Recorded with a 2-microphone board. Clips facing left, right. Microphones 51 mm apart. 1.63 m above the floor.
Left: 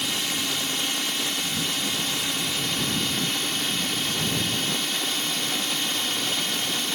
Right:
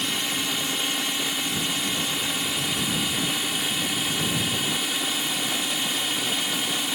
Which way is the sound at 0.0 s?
10° right (ahead or behind).